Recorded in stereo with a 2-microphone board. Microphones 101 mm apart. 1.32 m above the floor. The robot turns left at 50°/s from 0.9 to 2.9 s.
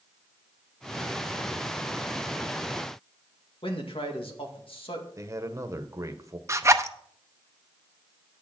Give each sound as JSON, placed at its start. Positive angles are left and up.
{"t": 3.6, "sound": "a man speaking", "side_deg": 60, "distance_m": 2.0}
{"t": 5.2, "sound": "a man speaking", "side_deg": -30, "distance_m": 1.1}
{"t": 6.5, "sound": "a zipper", "side_deg": -30, "distance_m": 0.7}